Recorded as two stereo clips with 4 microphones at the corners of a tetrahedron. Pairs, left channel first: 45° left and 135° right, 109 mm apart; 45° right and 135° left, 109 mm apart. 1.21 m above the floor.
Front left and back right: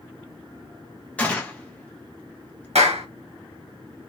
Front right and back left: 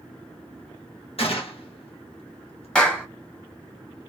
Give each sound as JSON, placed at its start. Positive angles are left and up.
{"t": 1.2, "sound": "a gunshot", "azimuth_deg": -30, "distance_m": 1.2}
{"t": 2.8, "sound": "a clap", "azimuth_deg": -125, "distance_m": 1.1}